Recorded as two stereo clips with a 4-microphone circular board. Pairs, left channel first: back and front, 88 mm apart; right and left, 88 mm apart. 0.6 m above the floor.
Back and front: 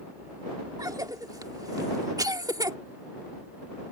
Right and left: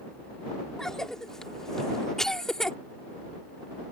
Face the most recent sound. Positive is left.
turn(degrees=-10)